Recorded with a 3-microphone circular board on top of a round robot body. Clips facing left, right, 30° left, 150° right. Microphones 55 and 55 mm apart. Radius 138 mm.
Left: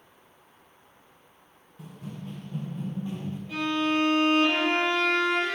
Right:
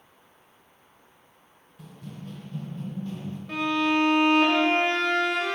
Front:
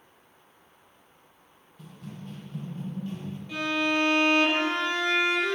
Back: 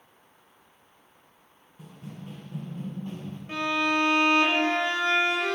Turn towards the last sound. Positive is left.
turn(degrees=-105)